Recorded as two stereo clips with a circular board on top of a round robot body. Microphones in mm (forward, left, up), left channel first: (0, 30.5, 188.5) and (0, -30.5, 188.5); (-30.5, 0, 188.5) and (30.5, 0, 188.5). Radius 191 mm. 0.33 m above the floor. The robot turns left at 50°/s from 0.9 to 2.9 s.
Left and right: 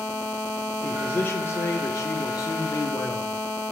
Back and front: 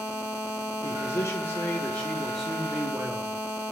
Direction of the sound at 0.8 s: 165° left.